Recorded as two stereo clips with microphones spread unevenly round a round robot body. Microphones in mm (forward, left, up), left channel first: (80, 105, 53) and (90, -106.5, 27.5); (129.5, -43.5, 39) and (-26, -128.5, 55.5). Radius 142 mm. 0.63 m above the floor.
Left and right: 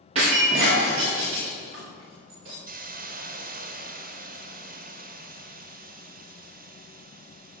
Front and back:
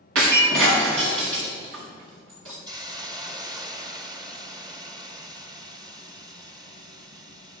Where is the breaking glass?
160° right, 5 m.